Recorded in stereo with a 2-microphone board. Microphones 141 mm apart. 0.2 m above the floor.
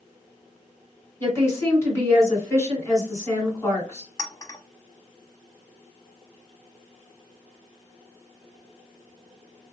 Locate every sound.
1.2 s a woman speaking: 20° left (ahead or behind), 1.8 m
4.2 s a clink: 25° left (ahead or behind), 0.7 m